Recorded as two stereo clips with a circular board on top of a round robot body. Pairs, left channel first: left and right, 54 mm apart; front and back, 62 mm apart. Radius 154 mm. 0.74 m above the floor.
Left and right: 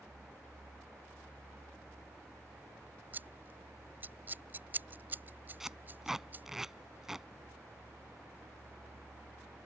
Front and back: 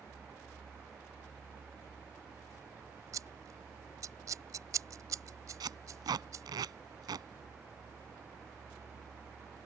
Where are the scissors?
145° right.